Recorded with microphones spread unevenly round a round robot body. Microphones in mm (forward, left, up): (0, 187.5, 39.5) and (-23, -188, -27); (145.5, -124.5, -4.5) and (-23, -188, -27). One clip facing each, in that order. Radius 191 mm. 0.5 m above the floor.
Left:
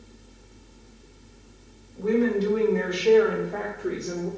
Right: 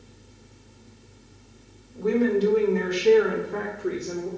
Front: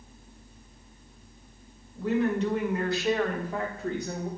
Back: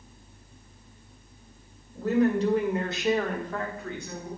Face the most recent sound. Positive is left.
turn(degrees=0)